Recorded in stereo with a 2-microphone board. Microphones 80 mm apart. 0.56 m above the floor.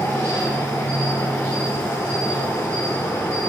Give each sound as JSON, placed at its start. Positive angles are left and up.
{"t": 0.0, "sound": "an insect", "side_deg": 30, "distance_m": 1.8}